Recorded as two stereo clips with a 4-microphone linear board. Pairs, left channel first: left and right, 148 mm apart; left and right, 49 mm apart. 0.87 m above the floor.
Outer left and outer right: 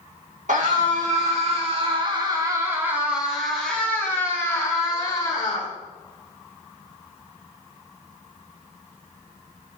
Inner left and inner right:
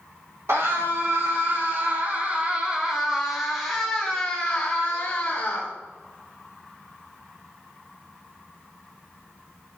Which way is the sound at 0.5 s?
60° right (ahead or behind).